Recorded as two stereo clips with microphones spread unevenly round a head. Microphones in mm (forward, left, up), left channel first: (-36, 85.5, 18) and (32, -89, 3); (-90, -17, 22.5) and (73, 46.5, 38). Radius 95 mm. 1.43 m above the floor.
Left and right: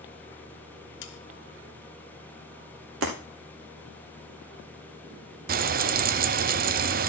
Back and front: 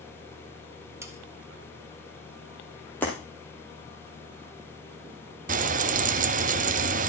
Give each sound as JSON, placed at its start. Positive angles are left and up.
{"t": 1.0, "sound": "sawing", "azimuth_deg": 95, "distance_m": 1.2}
{"t": 3.0, "sound": "breaking glass", "azimuth_deg": -75, "distance_m": 2.5}
{"t": 5.5, "sound": "frying", "azimuth_deg": -25, "distance_m": 0.6}